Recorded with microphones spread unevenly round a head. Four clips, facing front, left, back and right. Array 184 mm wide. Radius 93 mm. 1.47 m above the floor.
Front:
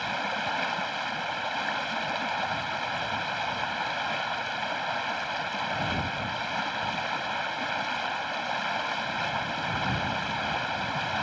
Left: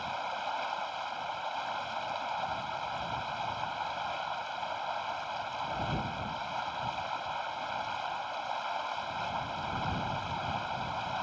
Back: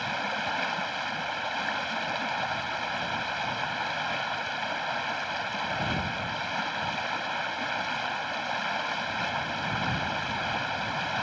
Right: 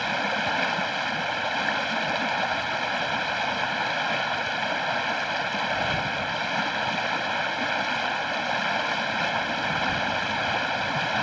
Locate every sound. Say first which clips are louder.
0.0 s running water: right 8 dB, front 1 dB; 90° right